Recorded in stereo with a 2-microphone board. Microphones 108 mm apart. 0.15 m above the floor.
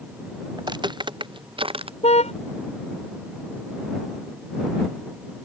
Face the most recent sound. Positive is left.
turn(degrees=80)